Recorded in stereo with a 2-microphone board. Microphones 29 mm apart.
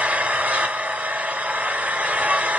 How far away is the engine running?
About 3 m.